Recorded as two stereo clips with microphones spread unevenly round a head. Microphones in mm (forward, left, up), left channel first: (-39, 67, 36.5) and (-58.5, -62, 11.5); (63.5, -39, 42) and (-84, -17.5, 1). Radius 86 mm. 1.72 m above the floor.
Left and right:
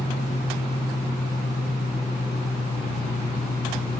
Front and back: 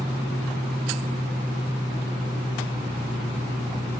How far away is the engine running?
About 1.3 m.